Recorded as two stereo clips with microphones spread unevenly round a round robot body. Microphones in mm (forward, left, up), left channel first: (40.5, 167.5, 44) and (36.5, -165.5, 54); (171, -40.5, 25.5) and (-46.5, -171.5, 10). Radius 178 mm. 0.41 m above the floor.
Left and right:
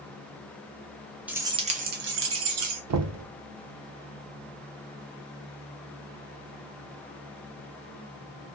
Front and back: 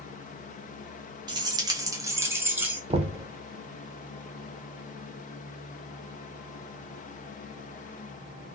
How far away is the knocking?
About 0.7 m.